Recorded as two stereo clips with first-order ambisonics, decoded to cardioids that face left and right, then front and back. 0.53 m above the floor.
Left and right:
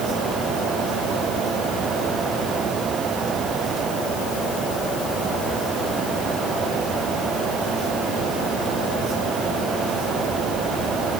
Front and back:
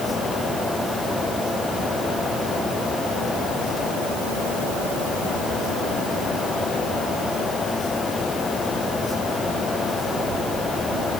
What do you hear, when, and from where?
Only background noise.